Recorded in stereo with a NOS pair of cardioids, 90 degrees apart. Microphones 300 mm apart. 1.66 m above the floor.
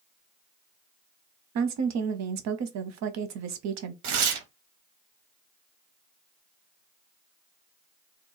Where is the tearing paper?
70° right, 0.8 m.